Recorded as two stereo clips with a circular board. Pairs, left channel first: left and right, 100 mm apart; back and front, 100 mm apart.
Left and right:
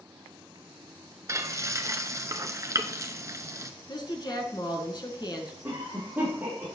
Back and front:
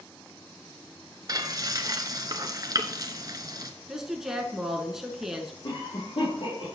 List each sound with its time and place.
1.3 s frying: 40° right, 0.9 m
3.9 s a woman speaking: 85° left, 1.5 m
5.6 s a cough: 160° right, 4 m